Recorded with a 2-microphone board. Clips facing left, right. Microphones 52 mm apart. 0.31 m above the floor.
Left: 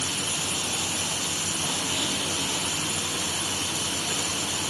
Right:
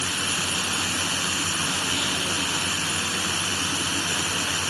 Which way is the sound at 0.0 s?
60° right (ahead or behind).